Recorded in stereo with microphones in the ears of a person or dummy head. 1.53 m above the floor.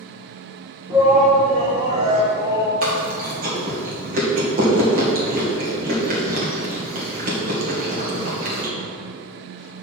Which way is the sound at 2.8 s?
50° right (ahead or behind).